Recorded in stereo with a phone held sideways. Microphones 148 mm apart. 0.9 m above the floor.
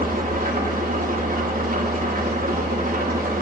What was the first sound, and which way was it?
An engine running, 70° right (ahead or behind).